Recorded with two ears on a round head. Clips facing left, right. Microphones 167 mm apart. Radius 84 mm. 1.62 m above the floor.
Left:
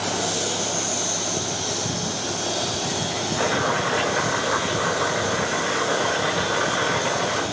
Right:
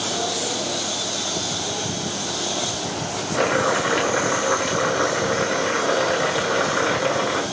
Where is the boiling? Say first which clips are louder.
Right 4 dB; 75° right (ahead or behind), 7.5 m.